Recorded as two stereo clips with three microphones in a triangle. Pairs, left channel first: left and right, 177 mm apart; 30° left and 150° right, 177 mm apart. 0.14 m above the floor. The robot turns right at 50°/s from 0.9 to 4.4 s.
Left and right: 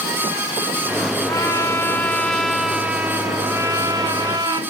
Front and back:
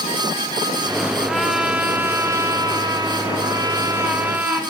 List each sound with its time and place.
1.3 s a trumpet: 115° left, 0.7 m; by 4.6 s 85° right, 0.7 m